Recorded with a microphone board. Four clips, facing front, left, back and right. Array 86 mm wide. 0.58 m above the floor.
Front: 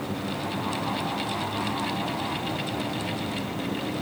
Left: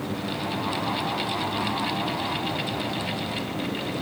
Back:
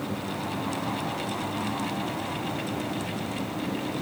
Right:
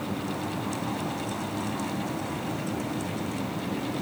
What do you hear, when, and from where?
Only background noise.